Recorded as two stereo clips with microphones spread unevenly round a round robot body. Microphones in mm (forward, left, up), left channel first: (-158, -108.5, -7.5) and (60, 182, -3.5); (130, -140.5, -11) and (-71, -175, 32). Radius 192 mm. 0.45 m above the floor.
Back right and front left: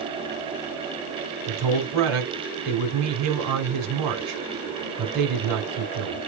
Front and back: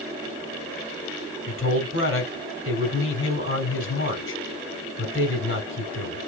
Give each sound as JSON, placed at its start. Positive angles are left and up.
{"t": 1.5, "sound": "a man speaking", "azimuth_deg": 15, "distance_m": 3.0}